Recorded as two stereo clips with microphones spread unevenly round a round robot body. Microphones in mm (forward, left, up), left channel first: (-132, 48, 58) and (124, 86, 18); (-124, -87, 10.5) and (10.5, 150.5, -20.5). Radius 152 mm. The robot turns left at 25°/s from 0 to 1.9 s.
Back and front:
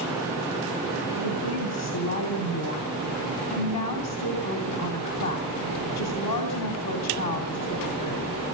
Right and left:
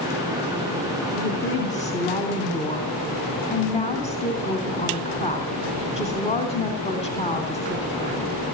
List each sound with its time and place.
1.1 s a woman speaking: 170° right, 3 m; by 8.3 s 170° left, 3 m